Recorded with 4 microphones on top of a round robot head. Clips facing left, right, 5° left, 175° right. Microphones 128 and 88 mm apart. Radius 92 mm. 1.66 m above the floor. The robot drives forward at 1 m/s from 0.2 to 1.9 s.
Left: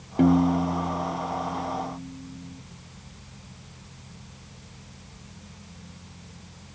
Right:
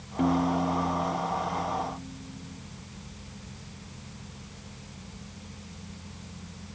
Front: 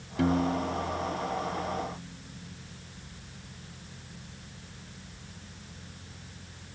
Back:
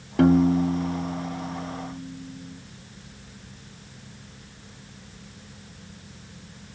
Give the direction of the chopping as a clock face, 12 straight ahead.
I don't hear chopping.